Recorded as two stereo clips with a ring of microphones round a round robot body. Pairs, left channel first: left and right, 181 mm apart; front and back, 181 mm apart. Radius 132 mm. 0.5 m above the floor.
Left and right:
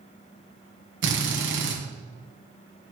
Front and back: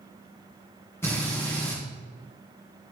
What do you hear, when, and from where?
1.0 s a drill: 80° right, 2 m